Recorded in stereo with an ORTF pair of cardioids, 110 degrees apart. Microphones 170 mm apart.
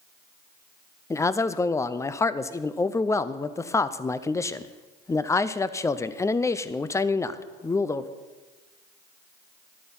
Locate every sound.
1.1 s a man speaking: 15° left, 0.6 m